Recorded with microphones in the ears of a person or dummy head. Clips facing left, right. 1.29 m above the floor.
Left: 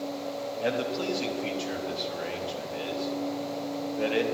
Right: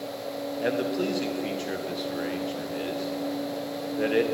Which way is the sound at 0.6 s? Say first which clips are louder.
Right 3 dB; 15° right (ahead or behind).